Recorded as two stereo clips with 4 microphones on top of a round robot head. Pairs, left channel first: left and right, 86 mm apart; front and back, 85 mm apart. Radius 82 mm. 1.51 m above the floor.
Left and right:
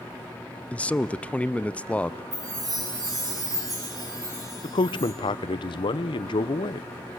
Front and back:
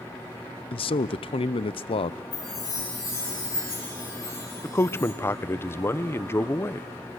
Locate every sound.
0.7 s a man speaking: 15° left, 0.6 m
2.3 s a chime: 45° right, 8 m
4.6 s a man speaking: 65° left, 0.7 m